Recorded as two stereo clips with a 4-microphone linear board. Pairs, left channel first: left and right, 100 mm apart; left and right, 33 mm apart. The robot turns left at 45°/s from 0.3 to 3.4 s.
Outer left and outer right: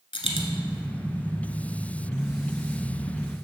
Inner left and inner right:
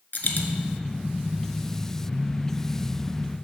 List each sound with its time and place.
0.1 s a dropped coin: 60° left (ahead or behind), 0.9 m